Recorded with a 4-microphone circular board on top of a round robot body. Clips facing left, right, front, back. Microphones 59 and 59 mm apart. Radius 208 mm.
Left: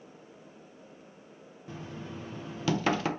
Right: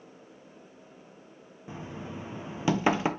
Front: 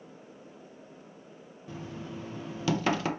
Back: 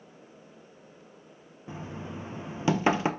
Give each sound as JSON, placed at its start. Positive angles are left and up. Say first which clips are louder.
{"t": 1.7, "sound": "knocking", "louder": "right 2 dB, back 1 dB", "azimuth_deg": -140, "distance_m": 0.8}